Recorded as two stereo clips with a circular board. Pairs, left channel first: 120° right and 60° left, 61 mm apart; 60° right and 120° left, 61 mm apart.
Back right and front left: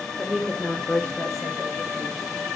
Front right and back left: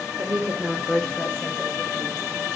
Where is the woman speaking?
135° left, 1.1 m; by 2.2 s 100° right, 2 m.